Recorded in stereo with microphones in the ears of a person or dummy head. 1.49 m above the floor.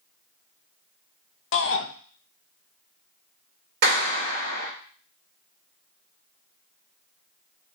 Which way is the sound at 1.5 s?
60° left (ahead or behind).